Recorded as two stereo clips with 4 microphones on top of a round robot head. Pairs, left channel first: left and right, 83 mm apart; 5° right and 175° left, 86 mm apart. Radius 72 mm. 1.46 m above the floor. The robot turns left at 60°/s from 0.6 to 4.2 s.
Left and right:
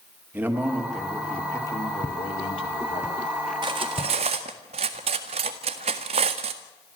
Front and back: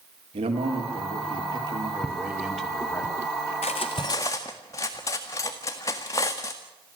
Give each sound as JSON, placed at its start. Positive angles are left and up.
{"t": 0.3, "sound": "a man speaking", "azimuth_deg": -155, "distance_m": 4.0}
{"t": 2.0, "sound": "footsteps", "azimuth_deg": -75, "distance_m": 1.5}
{"t": 3.6, "sound": "cutlery clinking", "azimuth_deg": -35, "distance_m": 1.5}